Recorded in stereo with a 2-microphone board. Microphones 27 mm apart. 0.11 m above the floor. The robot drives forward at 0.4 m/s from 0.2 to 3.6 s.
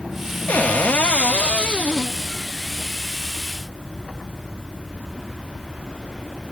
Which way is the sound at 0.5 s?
60° left (ahead or behind).